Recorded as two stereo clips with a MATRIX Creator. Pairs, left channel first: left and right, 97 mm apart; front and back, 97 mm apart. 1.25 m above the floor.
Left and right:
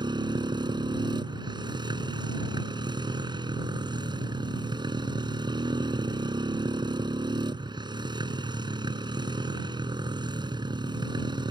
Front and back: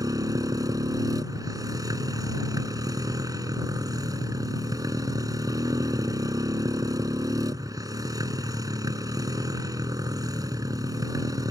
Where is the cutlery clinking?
No cutlery clinking in this recording.